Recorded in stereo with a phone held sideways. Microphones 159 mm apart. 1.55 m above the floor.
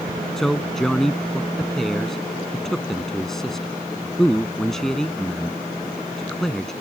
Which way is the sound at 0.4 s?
Centre (ahead or behind).